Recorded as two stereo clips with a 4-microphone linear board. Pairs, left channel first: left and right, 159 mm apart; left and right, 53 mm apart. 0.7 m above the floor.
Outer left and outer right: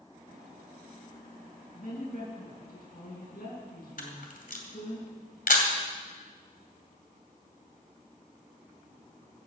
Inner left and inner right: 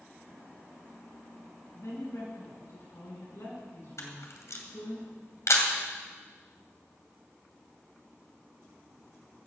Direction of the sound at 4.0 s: 70° left (ahead or behind).